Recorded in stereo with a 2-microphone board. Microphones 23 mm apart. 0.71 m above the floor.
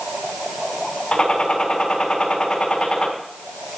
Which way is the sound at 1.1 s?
45° left (ahead or behind).